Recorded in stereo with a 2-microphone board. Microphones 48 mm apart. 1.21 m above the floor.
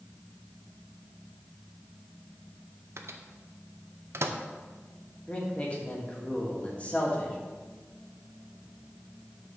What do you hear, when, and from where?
3.0 s a microwave: 60° right (ahead or behind), 0.7 m
5.3 s a man speaking: 25° left (ahead or behind), 1.7 m